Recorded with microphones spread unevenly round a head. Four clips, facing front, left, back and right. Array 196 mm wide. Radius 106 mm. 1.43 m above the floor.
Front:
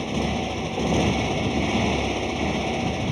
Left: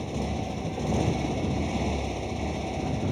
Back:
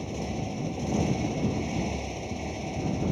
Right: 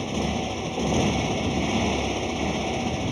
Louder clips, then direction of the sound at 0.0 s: Right 4 dB, front 7 dB; 35° right.